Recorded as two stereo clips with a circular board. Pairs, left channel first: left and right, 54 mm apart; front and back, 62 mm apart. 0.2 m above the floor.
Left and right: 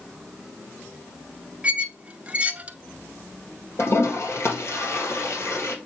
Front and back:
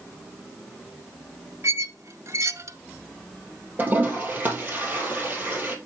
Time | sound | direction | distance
1.6 | a squeak | 150° right | 0.7 m
3.8 | a toilet flushing | 120° left | 2.5 m